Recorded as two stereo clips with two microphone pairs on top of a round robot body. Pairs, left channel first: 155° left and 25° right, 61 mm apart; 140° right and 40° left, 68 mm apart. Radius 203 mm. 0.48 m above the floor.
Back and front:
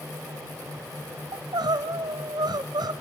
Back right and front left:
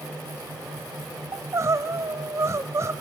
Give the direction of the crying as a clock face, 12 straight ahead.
12 o'clock.